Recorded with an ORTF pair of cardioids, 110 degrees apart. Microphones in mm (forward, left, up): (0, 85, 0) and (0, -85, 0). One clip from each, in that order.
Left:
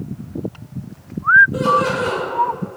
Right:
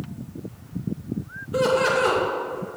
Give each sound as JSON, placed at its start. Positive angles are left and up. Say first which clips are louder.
{"t": 1.5, "sound": "laughter", "louder": "left 3 dB", "azimuth_deg": -25, "distance_m": 2.0}